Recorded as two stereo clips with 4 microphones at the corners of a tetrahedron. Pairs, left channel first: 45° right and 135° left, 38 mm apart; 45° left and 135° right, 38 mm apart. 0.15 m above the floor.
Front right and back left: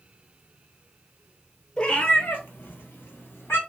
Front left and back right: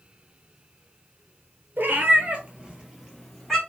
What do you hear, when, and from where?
1.8 s a cat meowing: 110° right, 0.9 m; by 3.6 s 40° right, 1.4 m